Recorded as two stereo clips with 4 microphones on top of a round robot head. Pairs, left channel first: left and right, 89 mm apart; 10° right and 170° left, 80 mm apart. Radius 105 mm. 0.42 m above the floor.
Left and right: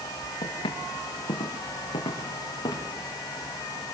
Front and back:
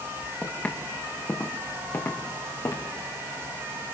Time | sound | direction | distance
0.4 | footsteps | 60° left | 6 m